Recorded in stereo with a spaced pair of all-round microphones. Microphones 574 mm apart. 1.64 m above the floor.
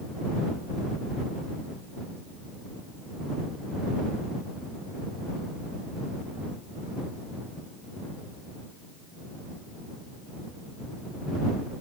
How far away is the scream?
No scream in this recording.